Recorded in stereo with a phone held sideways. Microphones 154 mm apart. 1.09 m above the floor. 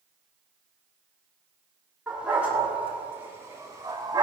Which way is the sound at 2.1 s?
5° right (ahead or behind).